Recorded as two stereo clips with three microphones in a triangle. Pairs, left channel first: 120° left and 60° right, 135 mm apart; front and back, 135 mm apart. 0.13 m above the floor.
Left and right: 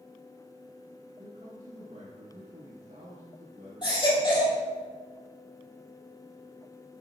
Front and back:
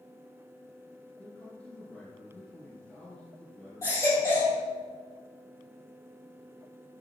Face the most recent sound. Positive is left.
turn(degrees=65)